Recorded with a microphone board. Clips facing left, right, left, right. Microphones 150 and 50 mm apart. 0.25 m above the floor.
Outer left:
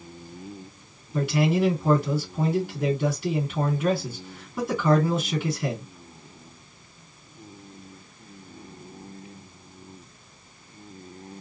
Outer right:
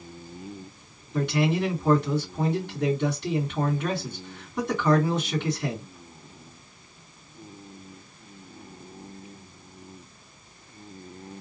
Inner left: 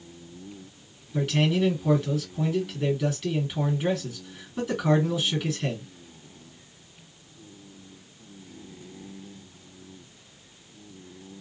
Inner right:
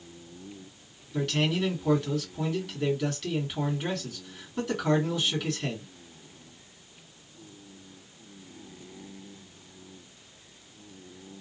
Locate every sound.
1.1 s a man speaking: 5° left (ahead or behind), 2.5 m